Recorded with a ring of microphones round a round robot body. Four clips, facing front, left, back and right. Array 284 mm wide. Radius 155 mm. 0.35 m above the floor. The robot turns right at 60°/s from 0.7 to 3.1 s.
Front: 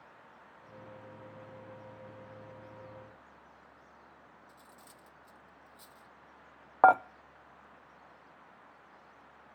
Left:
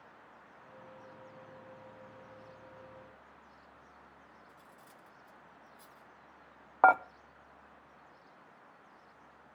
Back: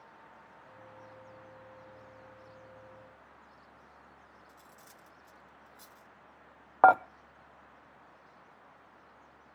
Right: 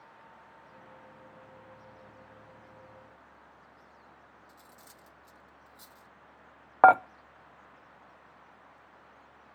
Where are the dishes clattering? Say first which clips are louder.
Right 5 dB, back 1 dB; 95° right, 0.5 m.